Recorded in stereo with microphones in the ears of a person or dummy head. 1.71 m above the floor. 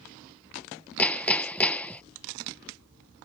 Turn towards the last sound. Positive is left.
turn(degrees=10)  # may be behind; listen again after turning